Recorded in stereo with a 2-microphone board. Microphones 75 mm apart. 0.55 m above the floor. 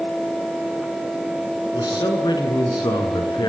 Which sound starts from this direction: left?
A man speaking, at 1.7 s.